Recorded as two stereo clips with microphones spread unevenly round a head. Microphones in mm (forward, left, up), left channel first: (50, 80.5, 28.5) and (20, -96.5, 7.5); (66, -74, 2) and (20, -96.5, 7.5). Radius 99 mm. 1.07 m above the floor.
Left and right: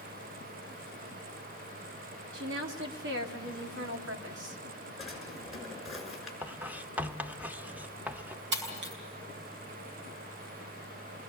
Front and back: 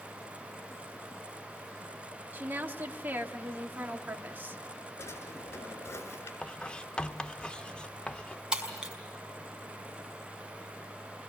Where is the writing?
15° right, 0.7 m.